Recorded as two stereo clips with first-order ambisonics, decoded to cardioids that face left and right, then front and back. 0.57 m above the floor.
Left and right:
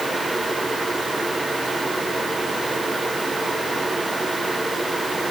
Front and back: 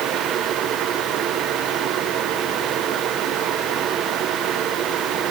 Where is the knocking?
I don't hear knocking.